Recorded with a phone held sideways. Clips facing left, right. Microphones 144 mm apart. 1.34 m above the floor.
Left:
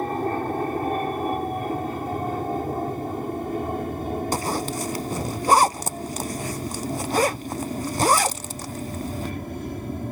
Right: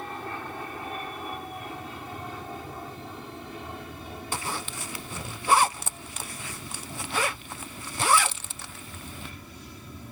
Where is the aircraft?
45° left (ahead or behind); by 10.1 s 55° left (ahead or behind).